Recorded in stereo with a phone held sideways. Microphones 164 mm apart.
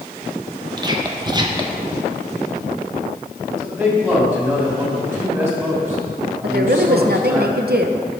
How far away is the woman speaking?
About 0.9 m.